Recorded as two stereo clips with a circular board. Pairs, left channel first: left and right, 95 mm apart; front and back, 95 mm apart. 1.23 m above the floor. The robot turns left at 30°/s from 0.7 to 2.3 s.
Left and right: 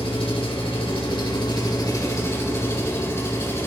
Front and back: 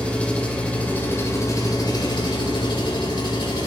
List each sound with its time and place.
0.0 s an engine running: 75° left, 3.5 m; by 3.7 s 30° left, 3.5 m